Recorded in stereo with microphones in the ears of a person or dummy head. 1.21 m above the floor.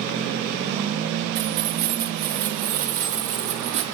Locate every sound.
1.4 s keys jangling: 60° right (ahead or behind), 3 m; by 3.9 s 35° right (ahead or behind), 3 m